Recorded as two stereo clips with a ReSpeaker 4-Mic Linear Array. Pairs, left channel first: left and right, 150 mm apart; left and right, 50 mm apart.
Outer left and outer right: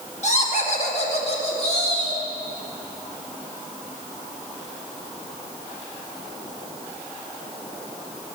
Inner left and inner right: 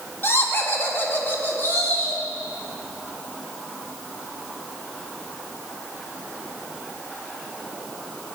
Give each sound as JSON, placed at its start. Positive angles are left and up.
{"t": 0.2, "sound": "laughter", "side_deg": 50, "distance_m": 1.6}